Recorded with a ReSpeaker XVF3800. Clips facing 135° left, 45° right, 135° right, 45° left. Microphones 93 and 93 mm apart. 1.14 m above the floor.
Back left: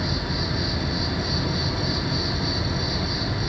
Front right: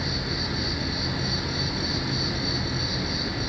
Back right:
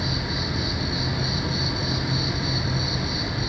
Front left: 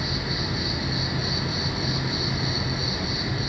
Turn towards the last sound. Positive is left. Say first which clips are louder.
# back left 3 dB, back right 1 dB
turn(degrees=170)